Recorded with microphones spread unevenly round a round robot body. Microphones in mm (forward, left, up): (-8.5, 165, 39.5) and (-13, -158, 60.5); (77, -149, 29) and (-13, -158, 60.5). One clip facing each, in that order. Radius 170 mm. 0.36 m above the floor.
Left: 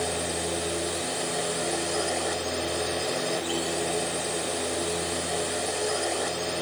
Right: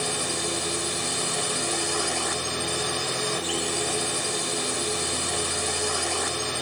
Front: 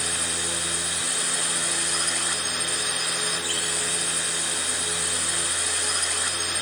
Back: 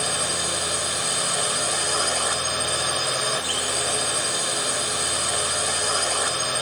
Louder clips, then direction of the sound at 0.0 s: Left 1 dB, back 5 dB; 150° right.